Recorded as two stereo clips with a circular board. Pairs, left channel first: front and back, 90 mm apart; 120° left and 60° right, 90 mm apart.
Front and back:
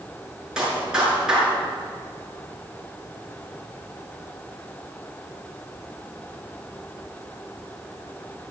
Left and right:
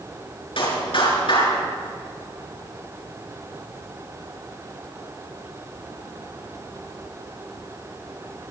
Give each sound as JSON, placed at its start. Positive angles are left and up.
{"t": 0.6, "sound": "a clap", "azimuth_deg": 95, "distance_m": 7.0}